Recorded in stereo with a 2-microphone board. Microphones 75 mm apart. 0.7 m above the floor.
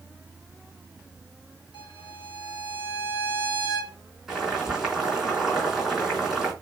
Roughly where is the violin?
Left.